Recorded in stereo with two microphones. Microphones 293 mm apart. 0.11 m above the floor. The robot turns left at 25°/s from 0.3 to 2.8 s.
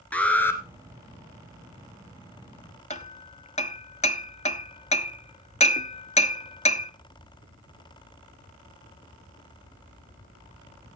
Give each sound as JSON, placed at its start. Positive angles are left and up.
{"t": 0.1, "sound": "an alarm", "side_deg": 5, "distance_m": 1.4}
{"t": 2.9, "sound": "hammering", "side_deg": 25, "distance_m": 0.6}